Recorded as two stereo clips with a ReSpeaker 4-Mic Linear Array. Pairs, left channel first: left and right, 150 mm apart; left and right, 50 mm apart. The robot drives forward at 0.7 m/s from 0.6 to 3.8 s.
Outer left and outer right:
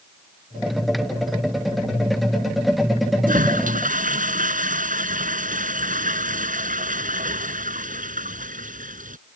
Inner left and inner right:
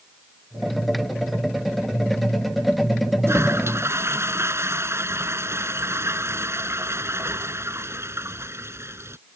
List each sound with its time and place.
3.3 s a toilet flushing: 65° right (ahead or behind); by 9.2 s 60° right (ahead or behind)